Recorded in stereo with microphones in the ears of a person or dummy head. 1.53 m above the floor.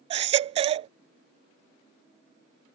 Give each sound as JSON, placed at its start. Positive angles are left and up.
{"t": 0.1, "sound": "a baby crying", "side_deg": -35}